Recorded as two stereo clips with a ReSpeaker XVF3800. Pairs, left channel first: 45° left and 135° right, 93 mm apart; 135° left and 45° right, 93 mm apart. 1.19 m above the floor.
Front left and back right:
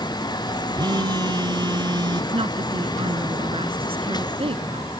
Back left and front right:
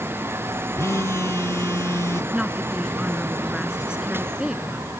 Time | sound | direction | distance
0.8 | a phone buzzing | 170° right | ?
2.3 | a woman speaking | 130° right | ?